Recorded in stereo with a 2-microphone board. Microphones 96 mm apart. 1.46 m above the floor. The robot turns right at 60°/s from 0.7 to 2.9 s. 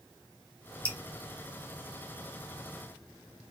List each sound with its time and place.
0.8 s dripping: 15° left (ahead or behind), 1.2 m; by 1.0 s 20° left (ahead or behind), 1.2 m